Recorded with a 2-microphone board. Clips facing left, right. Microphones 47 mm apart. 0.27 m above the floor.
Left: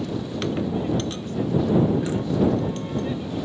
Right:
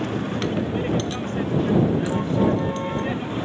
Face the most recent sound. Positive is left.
turn(degrees=-40)  # may be behind; listen again after turning